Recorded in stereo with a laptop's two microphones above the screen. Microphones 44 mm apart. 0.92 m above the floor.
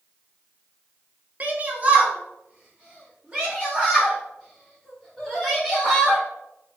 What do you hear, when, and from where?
1.4 s a shout: 35° right (ahead or behind), 0.6 m; by 6.2 s 20° right (ahead or behind), 3 m